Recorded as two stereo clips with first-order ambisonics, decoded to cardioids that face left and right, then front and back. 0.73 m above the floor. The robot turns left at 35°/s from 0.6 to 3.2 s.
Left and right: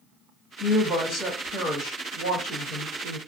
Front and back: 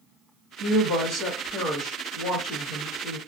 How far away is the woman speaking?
About 1.5 m.